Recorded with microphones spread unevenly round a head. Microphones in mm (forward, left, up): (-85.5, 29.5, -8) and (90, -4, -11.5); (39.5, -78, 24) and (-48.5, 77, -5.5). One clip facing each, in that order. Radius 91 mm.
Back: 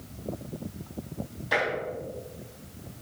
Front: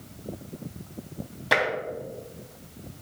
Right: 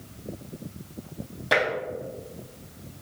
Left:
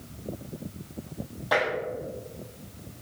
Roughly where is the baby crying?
I don't hear a baby crying.